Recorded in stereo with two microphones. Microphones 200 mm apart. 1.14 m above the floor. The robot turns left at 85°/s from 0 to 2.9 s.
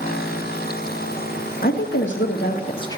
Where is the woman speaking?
130° left, 1.8 m; by 3.0 s 20° left, 1.8 m.